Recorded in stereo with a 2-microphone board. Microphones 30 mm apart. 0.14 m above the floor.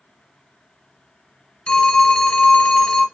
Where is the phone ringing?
25° left (ahead or behind), 1.0 m.